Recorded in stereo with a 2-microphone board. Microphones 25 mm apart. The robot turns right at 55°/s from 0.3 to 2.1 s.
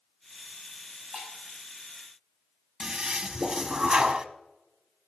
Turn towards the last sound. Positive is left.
turn(degrees=-35)  # may be behind; listen again after turning